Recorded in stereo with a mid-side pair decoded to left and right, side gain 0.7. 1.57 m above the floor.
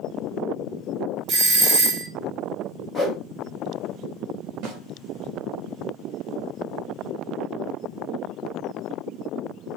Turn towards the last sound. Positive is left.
turn(degrees=-60)